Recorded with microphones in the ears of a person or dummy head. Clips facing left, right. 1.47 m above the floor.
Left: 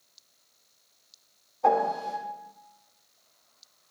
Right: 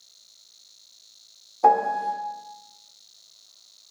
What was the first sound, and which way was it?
A piano, 70° right (ahead or behind).